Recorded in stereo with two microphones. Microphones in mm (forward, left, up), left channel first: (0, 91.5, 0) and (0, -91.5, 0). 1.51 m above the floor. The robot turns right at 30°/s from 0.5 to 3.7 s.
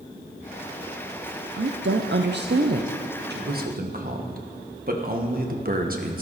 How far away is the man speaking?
About 1.4 m.